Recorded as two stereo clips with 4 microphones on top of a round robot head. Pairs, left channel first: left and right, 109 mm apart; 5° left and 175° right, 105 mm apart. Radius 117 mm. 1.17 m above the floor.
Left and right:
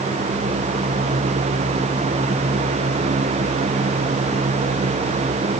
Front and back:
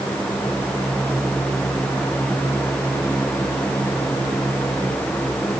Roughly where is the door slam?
No door slam in this recording.